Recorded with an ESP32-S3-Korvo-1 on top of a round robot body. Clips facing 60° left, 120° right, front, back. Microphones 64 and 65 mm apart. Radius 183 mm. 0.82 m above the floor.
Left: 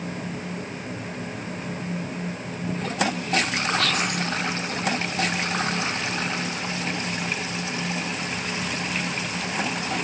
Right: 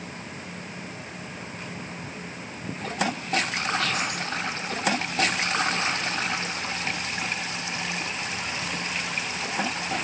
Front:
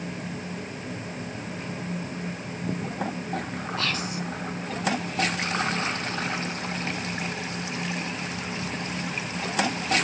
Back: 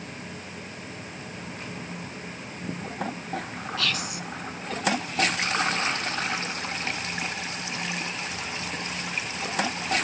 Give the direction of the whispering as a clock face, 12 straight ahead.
10 o'clock.